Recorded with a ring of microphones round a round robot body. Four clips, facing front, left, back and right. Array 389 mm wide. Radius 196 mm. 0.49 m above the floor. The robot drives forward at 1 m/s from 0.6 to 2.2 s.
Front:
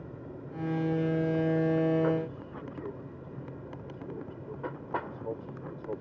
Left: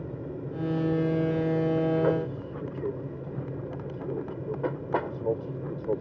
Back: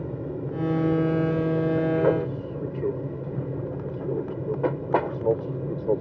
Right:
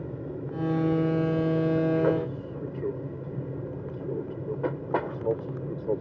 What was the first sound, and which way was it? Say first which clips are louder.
An aircraft: right 1 dB, back 12 dB; 175° right.